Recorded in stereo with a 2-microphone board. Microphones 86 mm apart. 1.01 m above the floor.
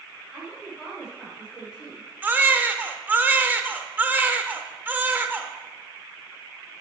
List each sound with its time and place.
0.3 s a woman speaking: 5° right (ahead or behind), 5 m
2.2 s a baby crying: 20° right (ahead or behind), 0.9 m